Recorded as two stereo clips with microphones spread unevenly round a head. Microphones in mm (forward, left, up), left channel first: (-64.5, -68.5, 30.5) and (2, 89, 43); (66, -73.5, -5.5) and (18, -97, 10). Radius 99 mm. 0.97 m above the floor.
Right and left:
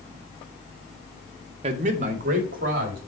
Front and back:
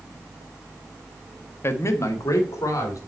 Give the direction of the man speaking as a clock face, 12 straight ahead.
12 o'clock.